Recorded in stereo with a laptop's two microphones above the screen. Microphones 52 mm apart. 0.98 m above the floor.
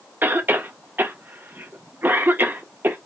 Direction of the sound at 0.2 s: 40° right (ahead or behind).